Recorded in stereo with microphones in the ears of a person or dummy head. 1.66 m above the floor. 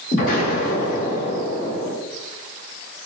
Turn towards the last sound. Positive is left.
turn(degrees=45)  # may be behind; listen again after turning